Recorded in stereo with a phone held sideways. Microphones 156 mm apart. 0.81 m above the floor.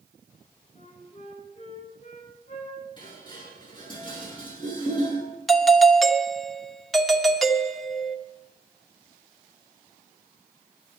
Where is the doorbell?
Centre (ahead or behind), 1.1 m.